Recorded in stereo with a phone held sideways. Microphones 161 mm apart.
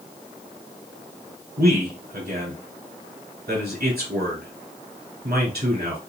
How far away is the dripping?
No dripping in this recording.